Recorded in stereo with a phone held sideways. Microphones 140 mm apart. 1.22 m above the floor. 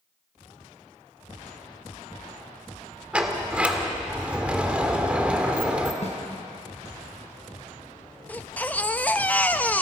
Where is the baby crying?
10° left (ahead or behind), 0.6 m.